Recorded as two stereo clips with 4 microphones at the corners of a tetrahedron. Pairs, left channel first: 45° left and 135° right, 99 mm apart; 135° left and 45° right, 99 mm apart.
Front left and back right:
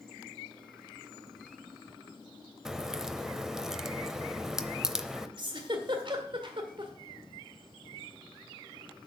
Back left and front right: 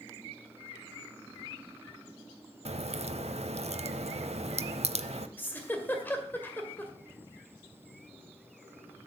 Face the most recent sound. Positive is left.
turn(degrees=-160)